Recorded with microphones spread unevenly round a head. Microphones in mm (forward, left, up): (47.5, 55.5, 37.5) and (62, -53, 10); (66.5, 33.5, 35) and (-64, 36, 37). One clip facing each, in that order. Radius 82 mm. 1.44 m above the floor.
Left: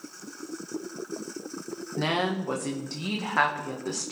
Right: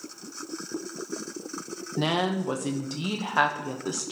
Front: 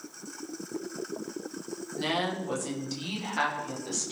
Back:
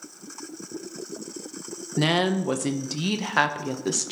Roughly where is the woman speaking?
Behind right.